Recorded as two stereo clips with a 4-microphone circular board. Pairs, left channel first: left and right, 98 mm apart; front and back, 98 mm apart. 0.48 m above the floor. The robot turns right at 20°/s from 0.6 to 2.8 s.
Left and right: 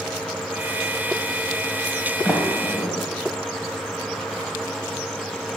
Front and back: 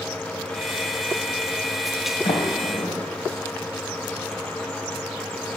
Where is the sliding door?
5° right, 1.3 m; by 3.0 s 10° left, 1.3 m.